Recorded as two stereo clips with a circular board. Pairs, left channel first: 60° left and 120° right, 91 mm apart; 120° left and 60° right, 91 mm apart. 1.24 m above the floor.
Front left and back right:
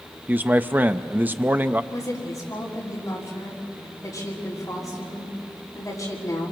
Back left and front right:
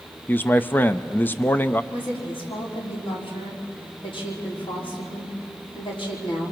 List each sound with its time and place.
0.3 s a man speaking: straight behind, 0.5 m
1.9 s a woman speaking: 110° left, 4 m